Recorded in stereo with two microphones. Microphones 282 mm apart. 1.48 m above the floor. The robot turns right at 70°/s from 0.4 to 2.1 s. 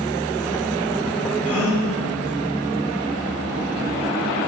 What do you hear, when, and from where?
1.4 s a gasp: 105° right, 0.9 m; by 1.9 s 75° right, 0.9 m